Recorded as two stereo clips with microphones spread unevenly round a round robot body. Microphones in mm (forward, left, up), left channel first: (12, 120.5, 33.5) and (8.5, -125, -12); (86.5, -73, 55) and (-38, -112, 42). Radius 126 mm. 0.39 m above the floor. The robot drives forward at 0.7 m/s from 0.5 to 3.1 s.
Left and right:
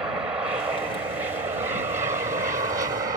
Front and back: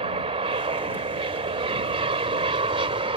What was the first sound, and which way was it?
An aircraft, 165° right.